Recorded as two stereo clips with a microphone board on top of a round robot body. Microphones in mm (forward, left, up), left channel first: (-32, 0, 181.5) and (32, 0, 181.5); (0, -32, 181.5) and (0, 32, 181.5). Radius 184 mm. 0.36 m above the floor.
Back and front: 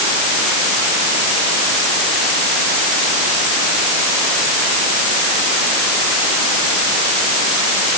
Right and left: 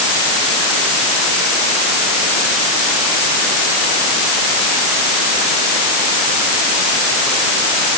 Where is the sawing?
No sawing in this recording.